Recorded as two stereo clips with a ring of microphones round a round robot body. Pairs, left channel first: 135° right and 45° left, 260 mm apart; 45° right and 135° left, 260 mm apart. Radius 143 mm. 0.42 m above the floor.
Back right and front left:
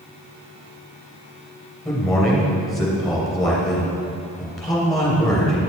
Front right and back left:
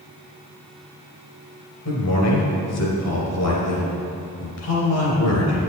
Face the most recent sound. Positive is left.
turn(degrees=-45)